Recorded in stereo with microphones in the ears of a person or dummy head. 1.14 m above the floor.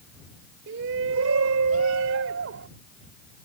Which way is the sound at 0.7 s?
60° right (ahead or behind).